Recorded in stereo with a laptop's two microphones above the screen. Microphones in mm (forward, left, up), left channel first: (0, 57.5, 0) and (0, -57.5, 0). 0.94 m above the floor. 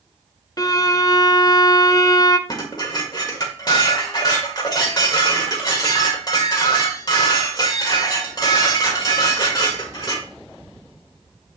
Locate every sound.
0.6 s a violin: 35° left (ahead or behind), 0.6 m
2.5 s dishes clattering: 35° left (ahead or behind), 2 m